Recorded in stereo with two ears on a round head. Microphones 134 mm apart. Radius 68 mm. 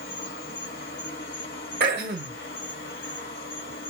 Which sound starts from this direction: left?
An insect, at 0.0 s.